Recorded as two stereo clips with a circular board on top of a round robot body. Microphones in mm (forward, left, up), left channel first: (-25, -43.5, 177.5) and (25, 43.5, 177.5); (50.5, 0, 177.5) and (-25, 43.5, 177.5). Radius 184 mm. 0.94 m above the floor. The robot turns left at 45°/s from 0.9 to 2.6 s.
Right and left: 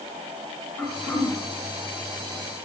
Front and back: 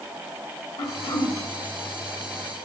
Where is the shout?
No shout in this recording.